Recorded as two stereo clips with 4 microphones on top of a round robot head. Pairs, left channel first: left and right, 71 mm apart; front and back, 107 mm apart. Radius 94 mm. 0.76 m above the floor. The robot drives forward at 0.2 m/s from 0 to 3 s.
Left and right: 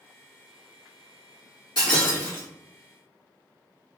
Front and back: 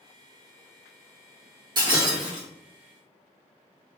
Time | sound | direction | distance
1.8 | breaking glass | 135° left | 1.4 m